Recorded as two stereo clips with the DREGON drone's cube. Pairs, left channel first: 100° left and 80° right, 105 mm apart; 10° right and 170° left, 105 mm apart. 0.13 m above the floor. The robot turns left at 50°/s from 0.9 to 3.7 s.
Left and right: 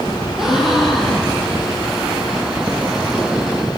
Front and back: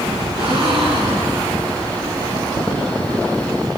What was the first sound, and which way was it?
A gasp, 165° right.